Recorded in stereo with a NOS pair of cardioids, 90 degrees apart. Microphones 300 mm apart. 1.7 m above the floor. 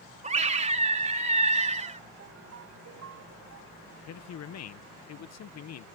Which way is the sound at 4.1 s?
60° left.